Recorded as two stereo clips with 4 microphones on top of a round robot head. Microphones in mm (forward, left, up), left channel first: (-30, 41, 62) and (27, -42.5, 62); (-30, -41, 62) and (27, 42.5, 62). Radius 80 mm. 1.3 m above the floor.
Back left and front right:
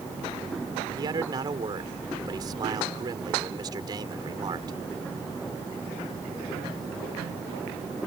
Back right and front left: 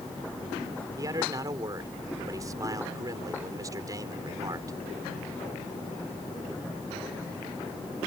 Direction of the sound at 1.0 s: 5° right.